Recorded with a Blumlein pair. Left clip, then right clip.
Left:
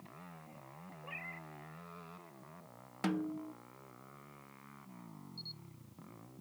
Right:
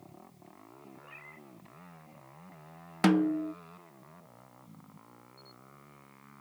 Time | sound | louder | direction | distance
1.0 | a cat meowing | left 6 dB | 15° left | ?
3.0 | a snare drum | right 11 dB | 60° right | ?
5.4 | a camera shutter | left 11 dB | 60° left | ?